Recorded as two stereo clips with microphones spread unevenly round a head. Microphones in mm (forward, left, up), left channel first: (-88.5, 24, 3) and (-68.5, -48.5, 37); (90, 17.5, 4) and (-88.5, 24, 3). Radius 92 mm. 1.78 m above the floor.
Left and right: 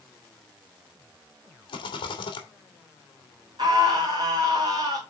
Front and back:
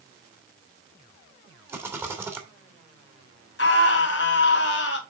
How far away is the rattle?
About 1.7 m.